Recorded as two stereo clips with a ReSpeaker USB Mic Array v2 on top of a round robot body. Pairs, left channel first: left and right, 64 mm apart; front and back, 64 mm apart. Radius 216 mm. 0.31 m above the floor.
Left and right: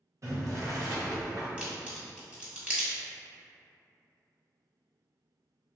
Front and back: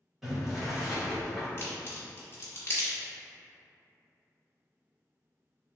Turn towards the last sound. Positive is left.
turn(degrees=-30)